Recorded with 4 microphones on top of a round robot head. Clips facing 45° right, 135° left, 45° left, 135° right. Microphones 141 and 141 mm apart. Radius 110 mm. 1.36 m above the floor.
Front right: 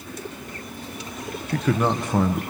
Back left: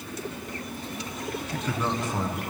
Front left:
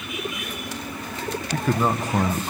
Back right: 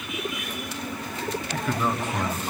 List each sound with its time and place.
1.5 s a man speaking: 10° right, 1.2 m